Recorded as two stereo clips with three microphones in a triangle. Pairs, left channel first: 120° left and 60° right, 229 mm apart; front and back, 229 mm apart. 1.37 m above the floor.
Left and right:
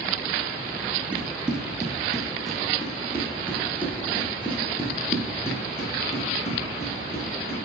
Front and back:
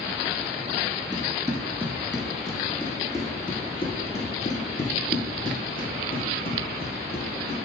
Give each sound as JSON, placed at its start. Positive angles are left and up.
{"t": 1.1, "sound": "running footsteps", "azimuth_deg": -135, "distance_m": 1.4}